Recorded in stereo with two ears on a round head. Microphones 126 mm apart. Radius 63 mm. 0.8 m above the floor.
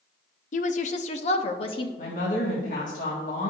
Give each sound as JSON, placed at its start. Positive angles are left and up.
{"t": 0.5, "sound": "a woman speaking", "side_deg": 55, "distance_m": 0.7}
{"t": 2.0, "sound": "a woman speaking", "side_deg": 60, "distance_m": 1.8}